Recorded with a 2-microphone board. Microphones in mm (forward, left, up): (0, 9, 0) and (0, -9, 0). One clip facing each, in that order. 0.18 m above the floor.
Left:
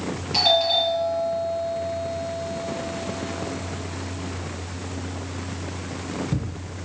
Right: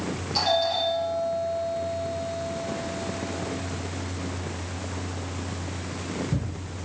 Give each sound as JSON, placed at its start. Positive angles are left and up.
{"t": 0.3, "sound": "a doorbell", "side_deg": 75, "distance_m": 7.0}